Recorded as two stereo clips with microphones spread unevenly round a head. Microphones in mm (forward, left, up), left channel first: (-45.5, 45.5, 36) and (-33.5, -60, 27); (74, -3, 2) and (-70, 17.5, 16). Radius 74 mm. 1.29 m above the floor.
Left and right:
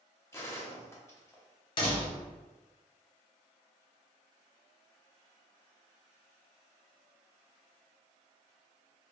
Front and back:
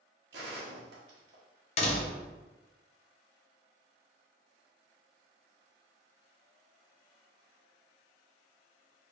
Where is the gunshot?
160° left, 1.0 m.